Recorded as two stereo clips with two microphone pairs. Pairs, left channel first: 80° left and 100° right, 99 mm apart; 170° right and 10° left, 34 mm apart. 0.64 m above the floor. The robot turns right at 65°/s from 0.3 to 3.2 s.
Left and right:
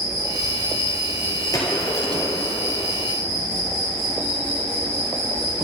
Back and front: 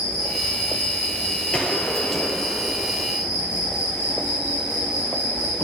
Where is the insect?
125° left, 3.5 m; by 5.7 s 45° right, 3.5 m.